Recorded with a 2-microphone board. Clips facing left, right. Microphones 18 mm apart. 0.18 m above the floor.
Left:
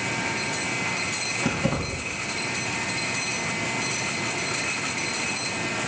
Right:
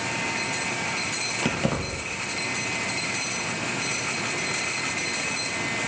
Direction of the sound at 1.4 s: 60° right (ahead or behind).